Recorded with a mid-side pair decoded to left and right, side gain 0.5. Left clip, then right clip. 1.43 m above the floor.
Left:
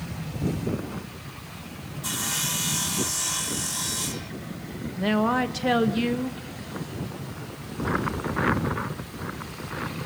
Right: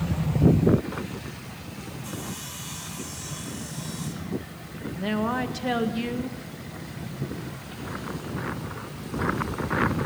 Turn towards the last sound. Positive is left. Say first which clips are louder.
# left 4 dB
turn(degrees=25)